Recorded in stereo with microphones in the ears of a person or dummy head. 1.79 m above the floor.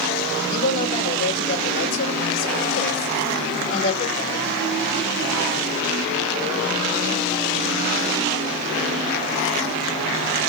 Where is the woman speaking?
70° left (ahead or behind), 3 m.